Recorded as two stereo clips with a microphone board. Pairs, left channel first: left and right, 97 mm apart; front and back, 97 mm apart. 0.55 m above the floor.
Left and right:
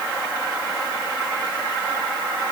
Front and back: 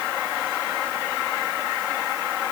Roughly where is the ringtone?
No ringtone in this recording.